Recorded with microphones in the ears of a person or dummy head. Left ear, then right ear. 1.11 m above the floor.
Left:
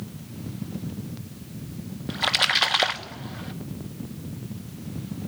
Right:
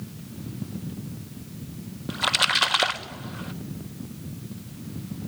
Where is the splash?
10° left (ahead or behind), 0.5 m.